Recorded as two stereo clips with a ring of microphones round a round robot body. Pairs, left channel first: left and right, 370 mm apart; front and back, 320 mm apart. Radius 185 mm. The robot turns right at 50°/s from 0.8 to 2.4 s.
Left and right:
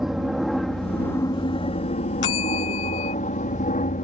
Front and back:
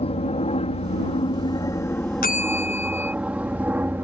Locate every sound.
0.0 s an aircraft: 5° right; by 4.0 s 105° left
2.2 s a bell: 60° left; by 3.1 s 70° left